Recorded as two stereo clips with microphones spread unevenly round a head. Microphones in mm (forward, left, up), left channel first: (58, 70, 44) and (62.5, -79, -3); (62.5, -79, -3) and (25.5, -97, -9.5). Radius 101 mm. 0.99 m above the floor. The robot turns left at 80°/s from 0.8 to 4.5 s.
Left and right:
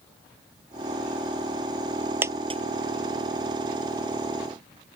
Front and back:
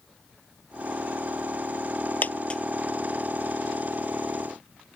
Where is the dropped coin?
10° right; by 2.6 s 40° right.